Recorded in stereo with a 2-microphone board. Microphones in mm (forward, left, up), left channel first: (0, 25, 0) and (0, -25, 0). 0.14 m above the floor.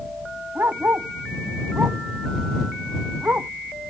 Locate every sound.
0.6 s a dog barking: 45° right (ahead or behind); by 3.5 s 40° right (ahead or behind)